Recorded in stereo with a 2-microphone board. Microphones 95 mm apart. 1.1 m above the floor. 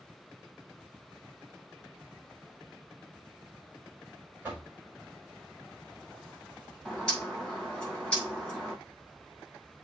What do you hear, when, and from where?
4.4 s knocking: 15° right (ahead or behind), 5.5 m
6.8 s a bird: 5° left (ahead or behind), 5 m